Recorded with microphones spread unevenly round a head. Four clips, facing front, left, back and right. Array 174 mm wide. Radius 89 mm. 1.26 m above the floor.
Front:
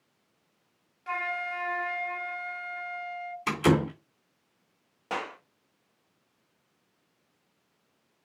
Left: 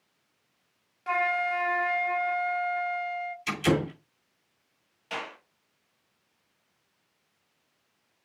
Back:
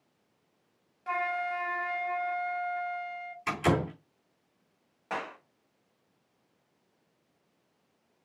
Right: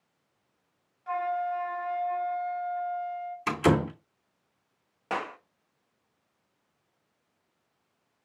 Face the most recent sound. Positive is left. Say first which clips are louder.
# right 5 dB, front 2 dB
turn(degrees=-55)